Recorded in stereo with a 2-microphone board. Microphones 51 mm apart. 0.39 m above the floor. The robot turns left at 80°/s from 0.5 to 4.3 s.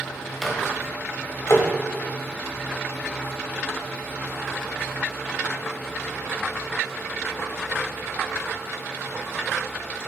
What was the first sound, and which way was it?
A microwave, 5° left (ahead or behind).